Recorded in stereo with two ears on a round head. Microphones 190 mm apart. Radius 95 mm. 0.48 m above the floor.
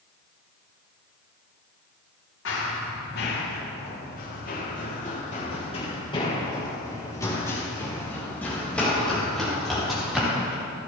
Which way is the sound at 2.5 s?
60° left (ahead or behind).